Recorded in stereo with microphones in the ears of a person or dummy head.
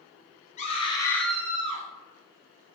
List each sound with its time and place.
0.6 s a scream: 35° left (ahead or behind), 1.2 m; by 1.8 s 35° right (ahead or behind), 0.9 m